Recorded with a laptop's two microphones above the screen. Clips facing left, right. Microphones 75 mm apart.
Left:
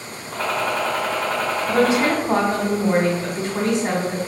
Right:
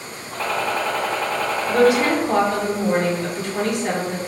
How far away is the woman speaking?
About 1.2 m.